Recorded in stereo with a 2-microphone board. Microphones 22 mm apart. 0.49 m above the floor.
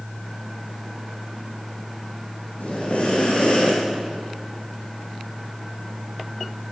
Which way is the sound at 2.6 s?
65° left (ahead or behind).